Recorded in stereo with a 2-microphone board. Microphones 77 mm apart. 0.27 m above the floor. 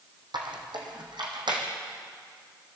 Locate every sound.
0.3 s a squeak: 85° right, 3.5 m